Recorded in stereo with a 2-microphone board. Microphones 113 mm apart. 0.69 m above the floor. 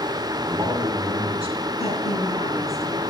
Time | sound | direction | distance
0.4 | a man speaking | 60° right (ahead or behind) | 2.5 m
1.8 | a woman speaking | 65° left (ahead or behind) | 5 m